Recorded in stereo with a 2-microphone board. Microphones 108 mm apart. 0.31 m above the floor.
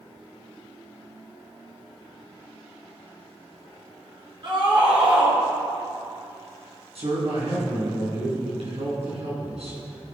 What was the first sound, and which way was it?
A scream, 50° right (ahead or behind).